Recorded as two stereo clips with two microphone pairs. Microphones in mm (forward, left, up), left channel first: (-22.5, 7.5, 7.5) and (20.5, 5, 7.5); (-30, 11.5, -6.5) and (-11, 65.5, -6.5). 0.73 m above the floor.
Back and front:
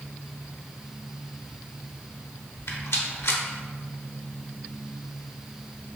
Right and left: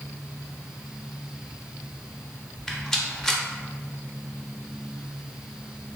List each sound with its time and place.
2.7 s a rattle: 170° left, 0.7 m